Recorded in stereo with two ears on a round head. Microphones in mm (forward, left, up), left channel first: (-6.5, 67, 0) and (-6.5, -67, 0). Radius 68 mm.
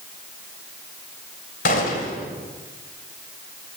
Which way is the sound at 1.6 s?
60° left (ahead or behind).